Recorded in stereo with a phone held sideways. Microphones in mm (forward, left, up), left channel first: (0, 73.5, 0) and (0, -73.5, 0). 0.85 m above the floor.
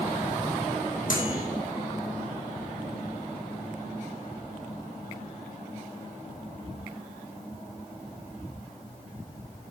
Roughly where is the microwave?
Left.